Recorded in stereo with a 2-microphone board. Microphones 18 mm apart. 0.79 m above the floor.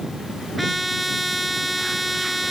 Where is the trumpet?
5° right (ahead or behind).